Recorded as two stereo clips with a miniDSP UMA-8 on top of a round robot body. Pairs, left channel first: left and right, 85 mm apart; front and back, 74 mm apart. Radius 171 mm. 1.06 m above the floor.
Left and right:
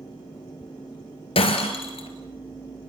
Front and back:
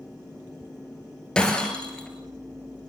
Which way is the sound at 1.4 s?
80° left.